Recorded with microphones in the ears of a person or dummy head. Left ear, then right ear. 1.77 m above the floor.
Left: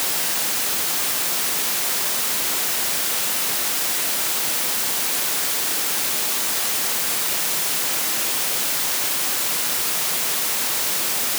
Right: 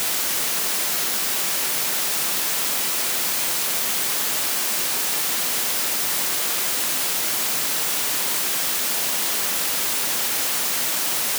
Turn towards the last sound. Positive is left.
No sound to turn to.